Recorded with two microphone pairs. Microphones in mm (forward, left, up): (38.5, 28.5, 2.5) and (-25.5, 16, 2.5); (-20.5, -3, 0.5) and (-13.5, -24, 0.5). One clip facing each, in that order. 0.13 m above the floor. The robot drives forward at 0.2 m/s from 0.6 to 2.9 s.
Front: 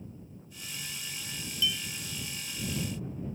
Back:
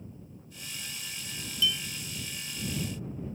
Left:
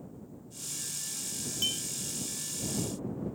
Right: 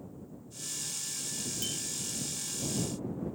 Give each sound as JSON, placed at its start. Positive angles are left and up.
{"t": 1.6, "sound": "a clink", "azimuth_deg": 90, "distance_m": 0.7}